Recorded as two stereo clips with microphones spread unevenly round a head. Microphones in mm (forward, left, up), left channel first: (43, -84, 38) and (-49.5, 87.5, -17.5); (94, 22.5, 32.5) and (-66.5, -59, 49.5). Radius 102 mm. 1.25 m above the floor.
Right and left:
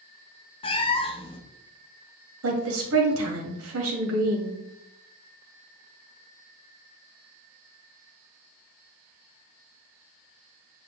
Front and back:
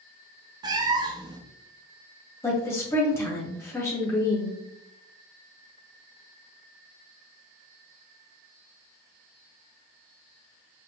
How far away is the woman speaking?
About 1.8 m.